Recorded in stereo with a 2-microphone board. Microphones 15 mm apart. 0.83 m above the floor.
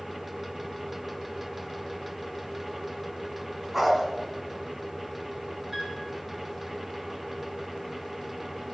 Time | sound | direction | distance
3.7 | a dog barking | 20° right (ahead or behind) | 1.8 m
5.7 | a piano | 30° right (ahead or behind) | 4 m